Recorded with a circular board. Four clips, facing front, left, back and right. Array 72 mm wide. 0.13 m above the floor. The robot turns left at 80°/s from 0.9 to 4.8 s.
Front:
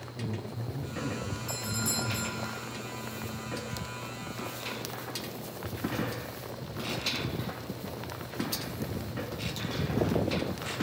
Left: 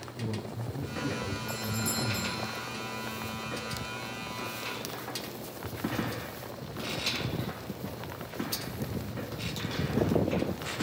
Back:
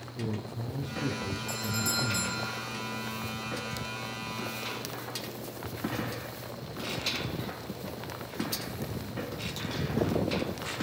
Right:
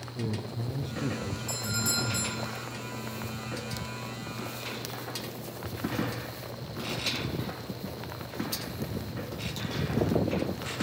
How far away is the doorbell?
About 8 m.